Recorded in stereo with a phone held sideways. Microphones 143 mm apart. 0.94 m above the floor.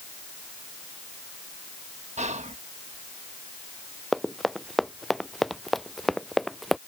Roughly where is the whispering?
Right.